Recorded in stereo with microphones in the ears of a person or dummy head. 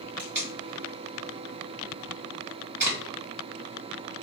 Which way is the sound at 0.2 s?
15° right (ahead or behind).